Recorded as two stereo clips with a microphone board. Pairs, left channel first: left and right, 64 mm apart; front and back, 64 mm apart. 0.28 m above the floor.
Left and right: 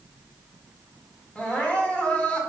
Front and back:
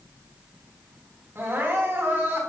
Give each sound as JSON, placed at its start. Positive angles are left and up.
{"t": 1.4, "sound": "crying", "azimuth_deg": 150, "distance_m": 2.0}